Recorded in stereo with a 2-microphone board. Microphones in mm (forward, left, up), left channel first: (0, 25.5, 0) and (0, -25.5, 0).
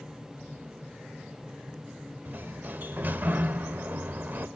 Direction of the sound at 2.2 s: 40° right (ahead or behind).